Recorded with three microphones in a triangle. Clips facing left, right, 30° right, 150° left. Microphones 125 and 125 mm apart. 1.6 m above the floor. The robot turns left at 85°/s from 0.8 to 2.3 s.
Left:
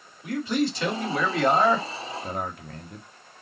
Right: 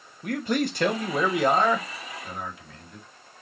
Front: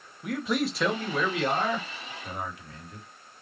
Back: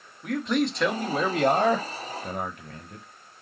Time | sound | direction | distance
0.2 | a man speaking | 115° right | 1.3 m